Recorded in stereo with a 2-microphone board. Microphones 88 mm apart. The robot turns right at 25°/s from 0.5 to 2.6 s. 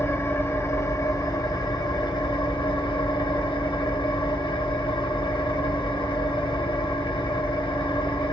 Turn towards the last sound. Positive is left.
turn(degrees=85)